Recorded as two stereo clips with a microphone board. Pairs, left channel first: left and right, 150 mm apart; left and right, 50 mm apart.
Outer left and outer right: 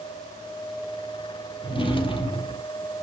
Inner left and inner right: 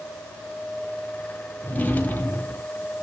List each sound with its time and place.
1.6 s a drawer: 35° left (ahead or behind), 1.9 m